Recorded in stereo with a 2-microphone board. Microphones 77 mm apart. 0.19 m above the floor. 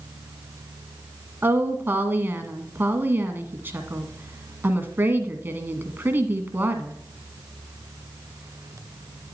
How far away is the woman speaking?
About 1.4 m.